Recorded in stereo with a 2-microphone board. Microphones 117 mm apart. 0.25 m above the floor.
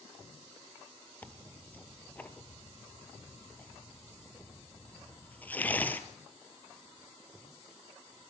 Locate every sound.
1.2 s tearing paper: 15° left (ahead or behind), 1.3 m